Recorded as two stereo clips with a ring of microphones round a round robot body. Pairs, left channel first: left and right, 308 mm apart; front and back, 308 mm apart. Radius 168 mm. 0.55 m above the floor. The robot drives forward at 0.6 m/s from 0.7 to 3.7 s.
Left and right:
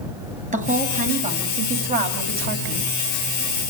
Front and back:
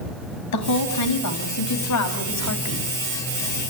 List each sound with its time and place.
0.5 s a woman speaking: 25° right, 5 m; by 3.0 s 35° right, 3.5 m